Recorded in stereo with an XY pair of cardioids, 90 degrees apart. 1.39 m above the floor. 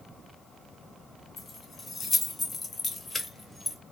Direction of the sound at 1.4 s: 55° left.